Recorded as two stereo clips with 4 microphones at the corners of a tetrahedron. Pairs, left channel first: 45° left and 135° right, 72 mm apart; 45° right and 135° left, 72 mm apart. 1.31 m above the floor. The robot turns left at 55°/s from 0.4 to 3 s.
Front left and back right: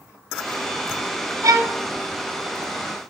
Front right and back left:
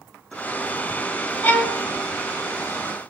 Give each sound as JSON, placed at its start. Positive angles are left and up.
{"t": 1.4, "sound": "a violin", "azimuth_deg": -110, "distance_m": 0.8}